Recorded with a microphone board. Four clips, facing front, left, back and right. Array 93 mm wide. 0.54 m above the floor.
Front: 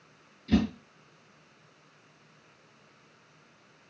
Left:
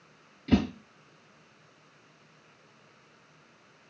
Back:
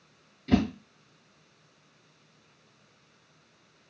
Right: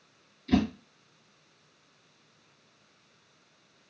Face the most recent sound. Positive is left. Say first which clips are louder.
# even, back 1 dB
turn(degrees=130)